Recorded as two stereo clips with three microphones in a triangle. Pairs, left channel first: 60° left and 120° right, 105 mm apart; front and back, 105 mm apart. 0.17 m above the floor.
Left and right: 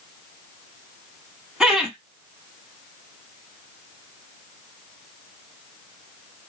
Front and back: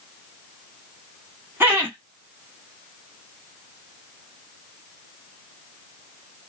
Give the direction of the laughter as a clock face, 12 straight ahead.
6 o'clock.